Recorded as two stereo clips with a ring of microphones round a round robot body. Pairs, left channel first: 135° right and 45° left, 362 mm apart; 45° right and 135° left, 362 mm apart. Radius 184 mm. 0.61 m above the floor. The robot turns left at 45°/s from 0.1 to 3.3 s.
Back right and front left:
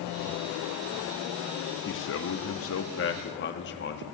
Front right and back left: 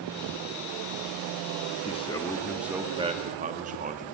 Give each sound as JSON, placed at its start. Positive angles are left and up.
{"t": 1.9, "sound": "a man speaking", "azimuth_deg": -105, "distance_m": 0.9}